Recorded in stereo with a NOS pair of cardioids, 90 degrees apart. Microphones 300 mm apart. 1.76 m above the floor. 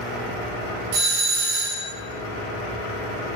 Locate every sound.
0.9 s a doorbell: 60° right, 1.0 m